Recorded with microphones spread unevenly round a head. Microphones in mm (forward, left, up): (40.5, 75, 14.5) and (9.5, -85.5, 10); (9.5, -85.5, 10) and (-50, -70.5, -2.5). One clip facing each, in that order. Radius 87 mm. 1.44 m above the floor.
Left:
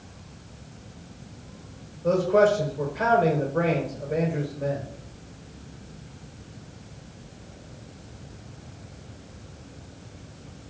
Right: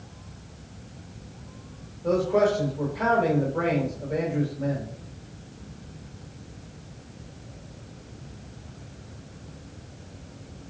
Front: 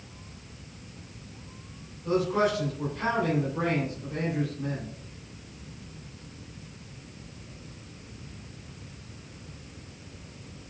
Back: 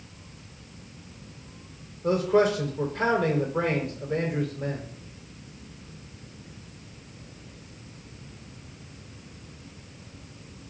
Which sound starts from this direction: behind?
A man speaking, at 2.0 s.